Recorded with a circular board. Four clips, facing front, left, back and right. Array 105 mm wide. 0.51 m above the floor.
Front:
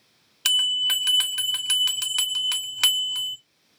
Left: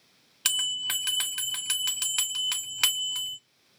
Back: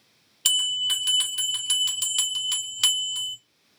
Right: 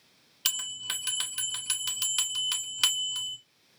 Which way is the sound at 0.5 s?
40° left.